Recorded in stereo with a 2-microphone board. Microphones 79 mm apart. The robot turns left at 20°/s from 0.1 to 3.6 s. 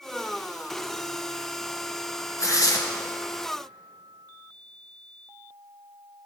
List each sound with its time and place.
2.4 s tearing paper: 40° left (ahead or behind), 1.1 m; by 2.8 s 45° left (ahead or behind), 1.1 m